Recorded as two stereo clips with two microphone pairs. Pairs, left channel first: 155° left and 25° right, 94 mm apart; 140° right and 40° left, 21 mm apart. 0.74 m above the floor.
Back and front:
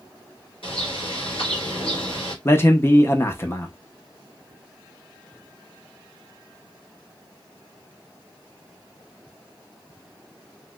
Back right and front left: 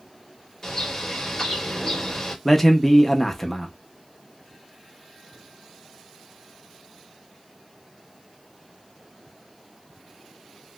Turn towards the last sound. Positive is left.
turn(degrees=155)